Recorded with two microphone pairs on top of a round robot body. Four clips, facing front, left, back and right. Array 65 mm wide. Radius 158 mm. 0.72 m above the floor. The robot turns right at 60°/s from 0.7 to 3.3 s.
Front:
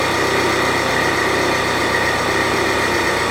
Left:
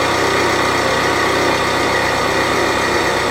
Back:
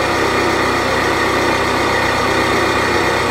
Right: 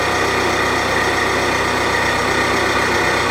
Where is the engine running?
65° left, 1.8 m; by 3.3 s 140° right, 1.8 m.